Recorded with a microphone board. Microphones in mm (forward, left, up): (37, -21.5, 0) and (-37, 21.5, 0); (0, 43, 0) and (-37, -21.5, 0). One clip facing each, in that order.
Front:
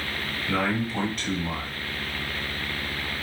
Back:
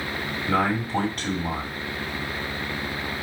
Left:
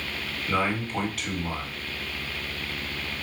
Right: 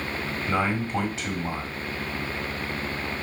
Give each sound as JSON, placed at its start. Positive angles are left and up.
{"t": 0.5, "sound": "a man speaking", "azimuth_deg": -175, "distance_m": 1.7}